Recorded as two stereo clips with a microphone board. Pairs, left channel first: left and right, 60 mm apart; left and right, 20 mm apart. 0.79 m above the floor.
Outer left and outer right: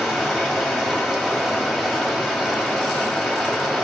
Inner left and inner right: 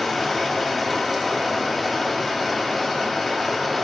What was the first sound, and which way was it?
Running water, 10° right (ahead or behind).